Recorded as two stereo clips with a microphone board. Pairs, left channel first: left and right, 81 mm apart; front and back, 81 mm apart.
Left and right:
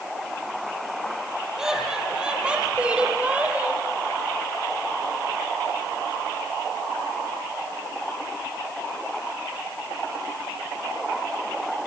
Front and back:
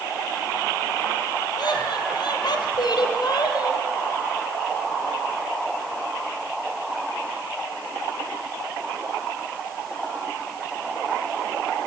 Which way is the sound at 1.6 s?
10° right.